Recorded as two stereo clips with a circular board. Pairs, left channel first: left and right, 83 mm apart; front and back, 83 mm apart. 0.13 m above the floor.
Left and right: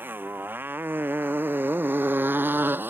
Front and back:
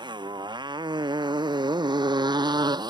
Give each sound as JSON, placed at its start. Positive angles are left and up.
{"t": 0.0, "sound": "a motorcycle", "azimuth_deg": -155}